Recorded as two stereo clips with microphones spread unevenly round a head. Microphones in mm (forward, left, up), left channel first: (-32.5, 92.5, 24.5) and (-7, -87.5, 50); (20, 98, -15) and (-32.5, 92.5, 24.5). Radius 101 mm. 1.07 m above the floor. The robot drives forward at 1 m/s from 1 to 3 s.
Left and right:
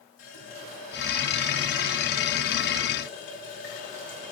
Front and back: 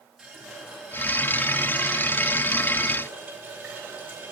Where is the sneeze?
I don't hear a sneeze.